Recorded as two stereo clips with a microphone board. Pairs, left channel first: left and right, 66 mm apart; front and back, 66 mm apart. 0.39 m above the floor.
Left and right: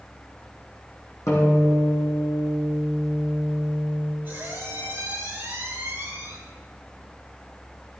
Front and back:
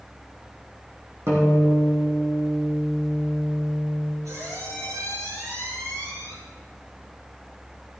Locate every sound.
1.3 s a guitar: 130° left, 4.5 m
4.2 s a squeak: 150° right, 5 m